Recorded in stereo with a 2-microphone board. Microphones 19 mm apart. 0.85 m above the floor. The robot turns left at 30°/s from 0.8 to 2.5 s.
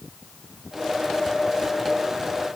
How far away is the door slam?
No door slam in this recording.